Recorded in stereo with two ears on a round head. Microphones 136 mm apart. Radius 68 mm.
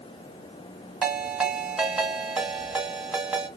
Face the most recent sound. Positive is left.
turn(degrees=-10)  # may be behind; listen again after turning